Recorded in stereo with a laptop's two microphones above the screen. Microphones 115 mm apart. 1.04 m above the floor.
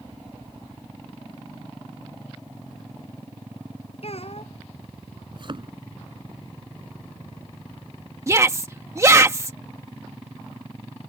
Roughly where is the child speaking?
Left.